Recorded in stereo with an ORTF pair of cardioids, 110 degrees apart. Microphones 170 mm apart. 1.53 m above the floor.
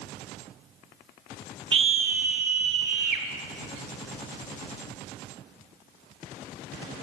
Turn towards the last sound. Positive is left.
turn(degrees=-75)